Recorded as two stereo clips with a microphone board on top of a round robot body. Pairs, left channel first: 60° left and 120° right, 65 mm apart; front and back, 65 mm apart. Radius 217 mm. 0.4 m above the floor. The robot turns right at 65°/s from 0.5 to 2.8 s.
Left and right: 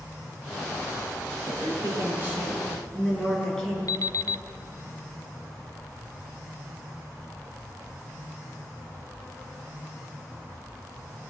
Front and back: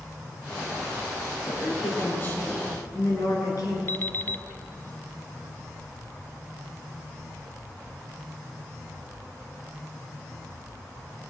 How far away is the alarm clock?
About 0.6 m.